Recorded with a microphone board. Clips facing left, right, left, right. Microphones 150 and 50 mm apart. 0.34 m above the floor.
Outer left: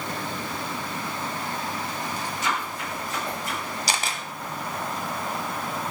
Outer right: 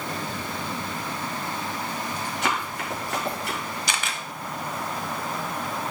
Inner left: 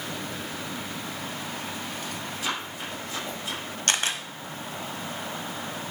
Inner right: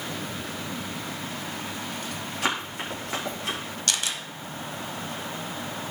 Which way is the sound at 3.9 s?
35° left (ahead or behind).